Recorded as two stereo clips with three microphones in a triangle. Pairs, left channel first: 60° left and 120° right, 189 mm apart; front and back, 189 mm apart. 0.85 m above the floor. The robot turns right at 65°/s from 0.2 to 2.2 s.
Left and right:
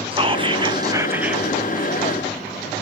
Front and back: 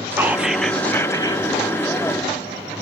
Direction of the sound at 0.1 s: 115° right.